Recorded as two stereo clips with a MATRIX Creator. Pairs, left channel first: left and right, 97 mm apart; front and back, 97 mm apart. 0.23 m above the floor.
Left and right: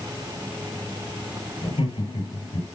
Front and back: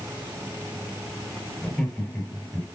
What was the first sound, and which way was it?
Laughter, 85° left.